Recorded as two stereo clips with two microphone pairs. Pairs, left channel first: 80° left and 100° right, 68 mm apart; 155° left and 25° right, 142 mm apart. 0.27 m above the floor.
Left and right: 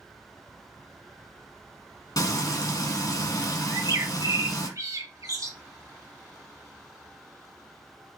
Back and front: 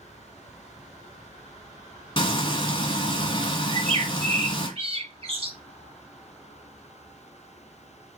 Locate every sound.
2.2 s frying: 105° left, 1.1 m
3.7 s a bird: 70° right, 1.0 m